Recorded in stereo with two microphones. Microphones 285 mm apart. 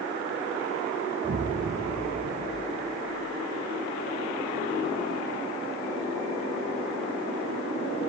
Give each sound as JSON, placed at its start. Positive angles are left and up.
{"t": 1.2, "sound": "an explosion", "side_deg": -55, "distance_m": 0.9}